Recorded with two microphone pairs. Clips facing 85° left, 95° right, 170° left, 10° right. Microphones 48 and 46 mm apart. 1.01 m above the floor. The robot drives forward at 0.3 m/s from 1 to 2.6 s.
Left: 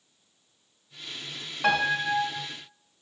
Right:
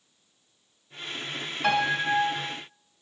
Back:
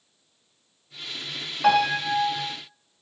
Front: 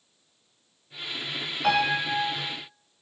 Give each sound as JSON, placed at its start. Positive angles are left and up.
{"t": 1.6, "sound": "a piano", "azimuth_deg": 135, "distance_m": 1.2}